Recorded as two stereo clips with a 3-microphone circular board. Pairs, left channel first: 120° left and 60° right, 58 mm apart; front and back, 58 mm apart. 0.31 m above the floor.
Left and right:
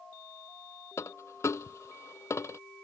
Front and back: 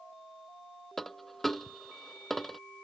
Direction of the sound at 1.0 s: 85° left.